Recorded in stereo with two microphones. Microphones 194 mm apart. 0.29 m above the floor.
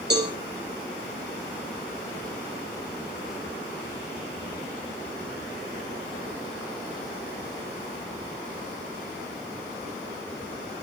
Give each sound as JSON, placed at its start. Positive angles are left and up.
{"t": 0.1, "sound": "a cowbell", "side_deg": -60, "distance_m": 6.0}